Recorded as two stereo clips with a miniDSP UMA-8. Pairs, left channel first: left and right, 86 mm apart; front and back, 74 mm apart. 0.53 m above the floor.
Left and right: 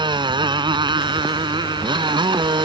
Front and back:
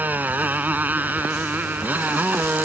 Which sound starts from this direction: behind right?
A motorcycle, at 0.0 s.